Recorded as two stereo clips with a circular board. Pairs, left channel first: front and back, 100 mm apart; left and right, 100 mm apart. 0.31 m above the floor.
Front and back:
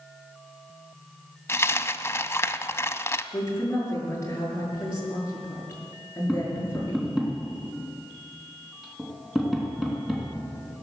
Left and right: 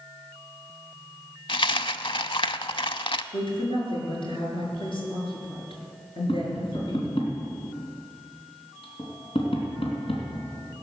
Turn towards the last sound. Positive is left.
turn(degrees=95)